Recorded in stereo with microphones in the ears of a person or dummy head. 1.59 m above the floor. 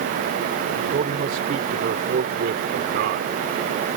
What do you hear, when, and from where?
0.7 s a man speaking: 45° right (ahead or behind); by 3.3 s 70° right (ahead or behind)